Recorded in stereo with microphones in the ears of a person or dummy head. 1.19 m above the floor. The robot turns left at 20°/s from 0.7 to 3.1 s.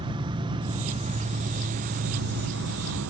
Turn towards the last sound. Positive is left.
turn(degrees=-80)